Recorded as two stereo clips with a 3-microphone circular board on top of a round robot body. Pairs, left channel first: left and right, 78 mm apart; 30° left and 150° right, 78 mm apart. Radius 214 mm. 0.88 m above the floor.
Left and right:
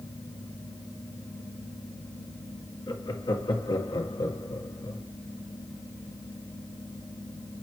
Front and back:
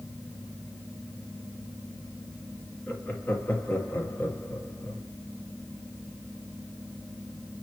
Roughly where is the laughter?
Left.